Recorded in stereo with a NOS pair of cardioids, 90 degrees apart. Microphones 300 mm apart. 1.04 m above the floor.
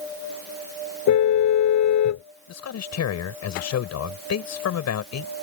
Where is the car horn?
65° left.